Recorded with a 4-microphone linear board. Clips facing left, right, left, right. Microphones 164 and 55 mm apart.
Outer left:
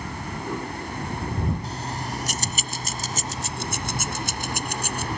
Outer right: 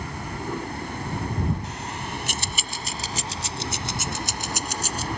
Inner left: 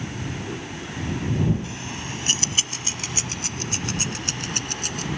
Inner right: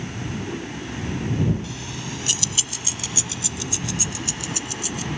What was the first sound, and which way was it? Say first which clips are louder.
Keys jangling: outer left 2 dB, even; 35° left (ahead or behind).